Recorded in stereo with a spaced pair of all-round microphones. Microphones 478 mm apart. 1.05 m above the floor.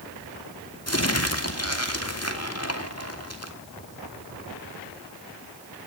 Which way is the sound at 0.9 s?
35° left (ahead or behind).